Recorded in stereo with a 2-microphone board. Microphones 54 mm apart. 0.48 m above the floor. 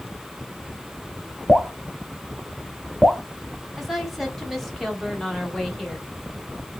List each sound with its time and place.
1.5 s dripping: 5° right (ahead or behind), 0.9 m
3.8 s a woman speaking: centre (ahead or behind), 1.7 m